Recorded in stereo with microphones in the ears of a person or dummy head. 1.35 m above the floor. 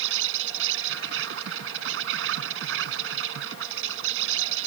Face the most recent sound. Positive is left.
turn(degrees=-80)